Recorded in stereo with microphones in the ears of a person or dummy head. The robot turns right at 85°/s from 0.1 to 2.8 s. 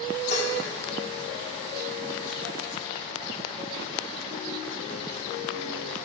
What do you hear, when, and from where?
0.3 s dishes clattering: 45° left (ahead or behind), 4 m; by 0.6 s 70° left (ahead or behind), 4 m